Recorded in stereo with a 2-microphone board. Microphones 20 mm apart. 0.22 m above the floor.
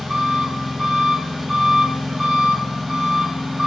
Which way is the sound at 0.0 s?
50° right (ahead or behind).